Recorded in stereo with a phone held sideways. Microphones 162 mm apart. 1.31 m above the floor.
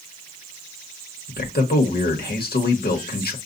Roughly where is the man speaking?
Left.